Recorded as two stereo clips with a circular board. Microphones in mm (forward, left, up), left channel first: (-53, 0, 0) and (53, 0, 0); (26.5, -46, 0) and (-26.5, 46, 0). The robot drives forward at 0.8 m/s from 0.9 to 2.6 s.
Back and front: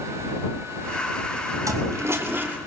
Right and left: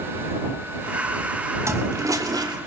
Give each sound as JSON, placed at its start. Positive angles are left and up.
{"t": 1.6, "sound": "a toilet flushing", "azimuth_deg": 60, "distance_m": 2.5}